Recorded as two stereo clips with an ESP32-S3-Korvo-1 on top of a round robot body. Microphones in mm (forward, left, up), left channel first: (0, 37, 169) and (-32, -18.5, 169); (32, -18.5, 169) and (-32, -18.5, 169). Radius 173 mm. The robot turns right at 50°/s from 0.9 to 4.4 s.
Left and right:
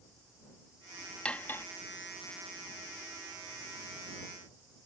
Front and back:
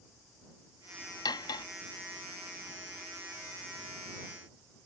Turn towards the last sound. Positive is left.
turn(degrees=145)